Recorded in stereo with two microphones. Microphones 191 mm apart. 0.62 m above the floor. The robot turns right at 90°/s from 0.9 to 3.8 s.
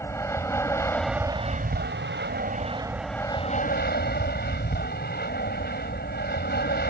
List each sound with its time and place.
0.0 s an aircraft: 165° left; by 6.9 s 65° left